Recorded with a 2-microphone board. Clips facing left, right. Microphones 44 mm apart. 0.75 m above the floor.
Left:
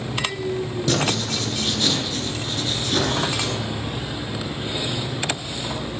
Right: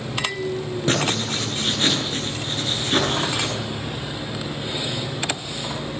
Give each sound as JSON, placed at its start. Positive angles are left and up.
{"t": 0.9, "sound": "writing", "side_deg": -35, "distance_m": 9.5}